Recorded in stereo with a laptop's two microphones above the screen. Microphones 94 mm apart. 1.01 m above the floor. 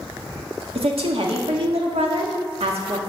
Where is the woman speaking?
80° right, 1.7 m.